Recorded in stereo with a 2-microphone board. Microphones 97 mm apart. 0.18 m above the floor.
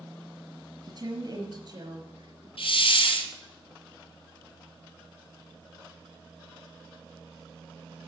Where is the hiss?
70° left (ahead or behind), 2 m.